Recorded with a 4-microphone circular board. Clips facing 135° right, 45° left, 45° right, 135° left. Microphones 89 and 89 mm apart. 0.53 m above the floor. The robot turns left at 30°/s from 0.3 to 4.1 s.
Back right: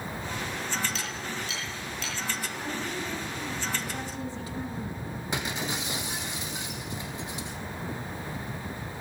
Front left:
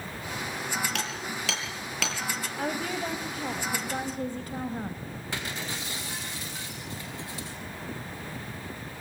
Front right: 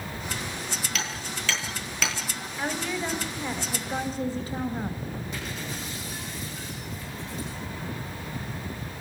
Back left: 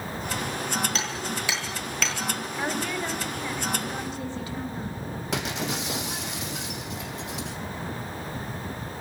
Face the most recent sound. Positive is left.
turn(degrees=150)